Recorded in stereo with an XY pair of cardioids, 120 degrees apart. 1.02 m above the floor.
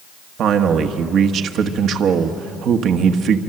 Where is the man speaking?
60° right, 1.3 m.